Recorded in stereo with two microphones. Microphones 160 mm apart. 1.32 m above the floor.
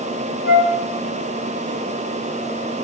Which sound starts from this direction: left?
A flute, at 0.4 s.